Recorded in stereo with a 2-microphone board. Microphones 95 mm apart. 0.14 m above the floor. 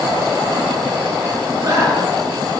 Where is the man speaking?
40° right (ahead or behind), 2.5 m; by 2.5 s 35° right (ahead or behind), 2.5 m.